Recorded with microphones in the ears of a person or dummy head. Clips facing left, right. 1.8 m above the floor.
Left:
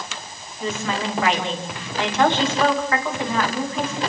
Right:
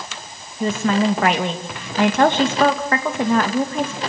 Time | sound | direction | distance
0.6 | a woman speaking | 45° right (ahead or behind) | 2.5 m